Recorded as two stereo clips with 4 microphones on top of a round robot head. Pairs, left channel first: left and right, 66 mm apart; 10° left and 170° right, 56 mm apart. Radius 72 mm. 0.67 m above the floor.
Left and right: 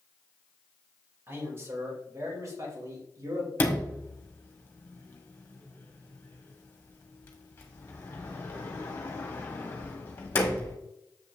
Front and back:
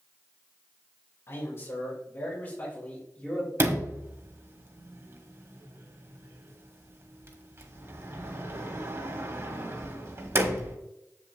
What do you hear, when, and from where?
1.3 s a man speaking: 40° right, 3.5 m; by 3.5 s 65° right, 3.5 m
3.6 s a sliding door: 150° left, 1.8 m